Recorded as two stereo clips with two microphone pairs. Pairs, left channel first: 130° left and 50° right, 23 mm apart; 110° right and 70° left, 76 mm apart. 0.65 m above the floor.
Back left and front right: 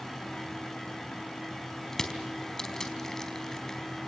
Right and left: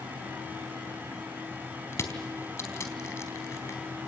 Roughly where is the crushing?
Behind.